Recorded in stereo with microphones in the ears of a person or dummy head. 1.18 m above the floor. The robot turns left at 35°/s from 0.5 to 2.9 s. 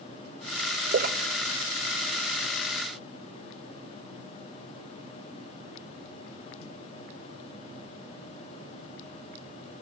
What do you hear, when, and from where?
0.9 s a splash: 50° right (ahead or behind), 0.6 m; by 3.0 s 10° left (ahead or behind), 0.6 m